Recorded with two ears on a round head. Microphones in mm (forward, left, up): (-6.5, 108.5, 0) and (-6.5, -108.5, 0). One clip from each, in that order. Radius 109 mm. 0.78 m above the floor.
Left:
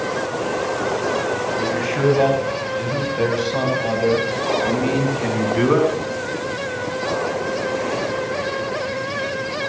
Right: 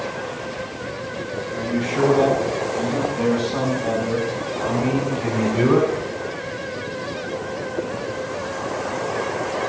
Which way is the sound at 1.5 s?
65° left (ahead or behind).